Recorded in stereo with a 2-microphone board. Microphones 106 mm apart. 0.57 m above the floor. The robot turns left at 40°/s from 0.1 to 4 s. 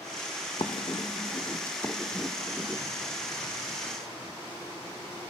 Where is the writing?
55° left (ahead or behind), 0.6 m; by 2.8 s 25° right (ahead or behind), 0.6 m.